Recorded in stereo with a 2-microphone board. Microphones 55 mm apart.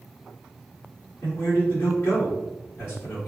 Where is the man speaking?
35° left (ahead or behind), 1.6 m.